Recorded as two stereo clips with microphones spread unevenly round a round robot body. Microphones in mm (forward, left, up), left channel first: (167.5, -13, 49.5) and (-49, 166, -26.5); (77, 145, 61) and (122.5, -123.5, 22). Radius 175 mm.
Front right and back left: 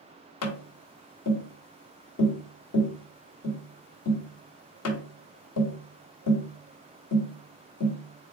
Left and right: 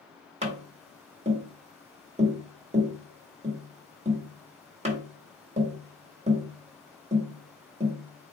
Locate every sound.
0.4 s tapping: 50° right, 1.4 m